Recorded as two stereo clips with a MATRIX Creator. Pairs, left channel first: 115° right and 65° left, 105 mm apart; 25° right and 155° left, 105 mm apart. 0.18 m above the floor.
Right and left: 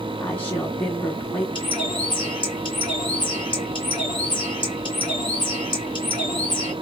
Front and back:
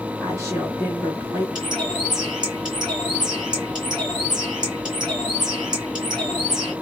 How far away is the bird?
About 2 m.